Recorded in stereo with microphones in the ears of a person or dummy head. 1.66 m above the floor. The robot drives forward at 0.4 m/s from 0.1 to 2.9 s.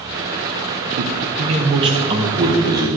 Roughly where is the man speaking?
Right.